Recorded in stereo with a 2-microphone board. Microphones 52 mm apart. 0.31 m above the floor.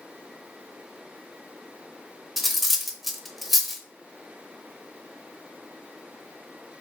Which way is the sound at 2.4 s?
Centre (ahead or behind).